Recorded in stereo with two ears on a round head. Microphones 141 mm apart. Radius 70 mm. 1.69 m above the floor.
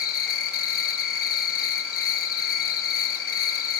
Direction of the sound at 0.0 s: 65° left (ahead or behind).